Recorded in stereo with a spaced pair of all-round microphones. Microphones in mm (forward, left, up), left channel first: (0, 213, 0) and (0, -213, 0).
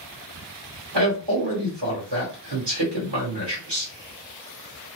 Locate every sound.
0.9 s a man speaking: 80° right, 1.2 m